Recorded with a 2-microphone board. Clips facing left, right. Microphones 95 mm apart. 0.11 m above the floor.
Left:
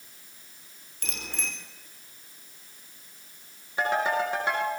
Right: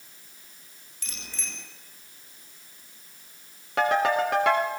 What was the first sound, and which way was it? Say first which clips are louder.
A bicycle bell: left 5 dB; 50° left (ahead or behind).